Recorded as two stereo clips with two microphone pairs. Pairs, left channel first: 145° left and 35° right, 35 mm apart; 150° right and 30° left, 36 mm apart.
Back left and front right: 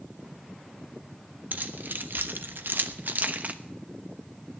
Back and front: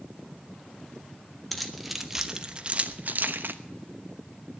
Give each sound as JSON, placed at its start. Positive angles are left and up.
{"t": 1.5, "sound": "keys jangling", "azimuth_deg": -60, "distance_m": 1.4}